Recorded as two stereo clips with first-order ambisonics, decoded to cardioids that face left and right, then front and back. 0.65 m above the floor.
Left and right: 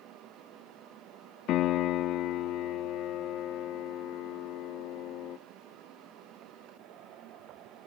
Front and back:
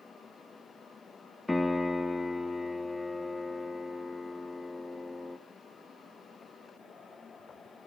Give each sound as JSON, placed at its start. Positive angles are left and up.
{"t": 1.5, "sound": "a piano", "azimuth_deg": 80, "distance_m": 0.7}